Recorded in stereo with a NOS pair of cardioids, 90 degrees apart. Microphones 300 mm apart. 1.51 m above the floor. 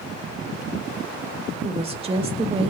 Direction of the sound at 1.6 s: 20° right.